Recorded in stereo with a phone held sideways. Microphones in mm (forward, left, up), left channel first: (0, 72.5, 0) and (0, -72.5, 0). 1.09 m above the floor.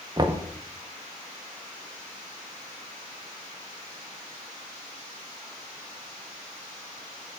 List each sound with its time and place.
0.2 s knocking: 30° right (ahead or behind), 0.7 m